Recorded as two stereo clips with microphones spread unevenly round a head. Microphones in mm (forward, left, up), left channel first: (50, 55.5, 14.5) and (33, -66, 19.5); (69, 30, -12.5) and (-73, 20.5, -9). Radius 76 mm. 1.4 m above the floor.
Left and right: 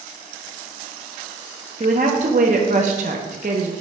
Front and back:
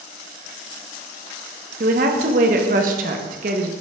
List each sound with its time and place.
1.8 s a woman speaking: 145° right, 0.9 m